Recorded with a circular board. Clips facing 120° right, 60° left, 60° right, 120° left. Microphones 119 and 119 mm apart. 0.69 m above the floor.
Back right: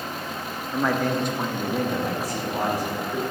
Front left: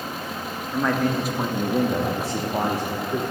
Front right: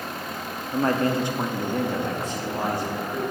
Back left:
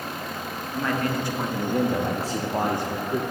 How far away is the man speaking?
About 1.0 m.